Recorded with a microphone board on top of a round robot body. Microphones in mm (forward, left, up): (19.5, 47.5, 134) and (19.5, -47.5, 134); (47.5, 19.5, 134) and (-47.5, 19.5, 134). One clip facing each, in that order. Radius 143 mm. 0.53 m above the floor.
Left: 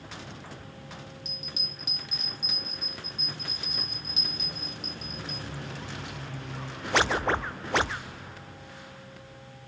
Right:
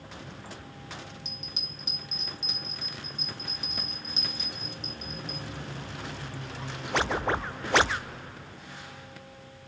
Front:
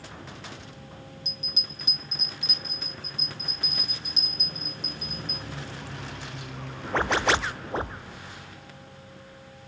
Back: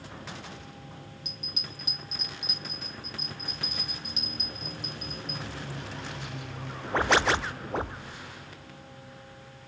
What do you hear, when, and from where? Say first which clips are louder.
1.2 s a bell: left 1 dB, front 1 dB; 45° right, 1.1 m